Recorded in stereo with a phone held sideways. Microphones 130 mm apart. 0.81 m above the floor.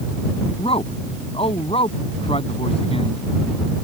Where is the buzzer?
No buzzer in this recording.